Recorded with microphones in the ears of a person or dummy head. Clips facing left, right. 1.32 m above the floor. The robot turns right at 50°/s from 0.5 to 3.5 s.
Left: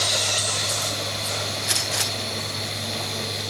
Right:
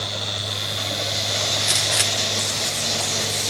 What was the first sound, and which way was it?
A gunshot, 15° right (ahead or behind).